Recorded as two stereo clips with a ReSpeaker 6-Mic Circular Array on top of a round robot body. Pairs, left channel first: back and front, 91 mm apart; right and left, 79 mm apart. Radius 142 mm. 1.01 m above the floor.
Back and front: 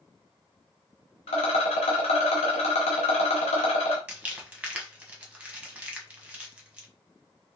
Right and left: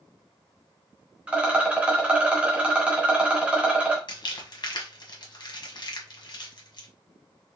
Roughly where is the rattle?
Behind.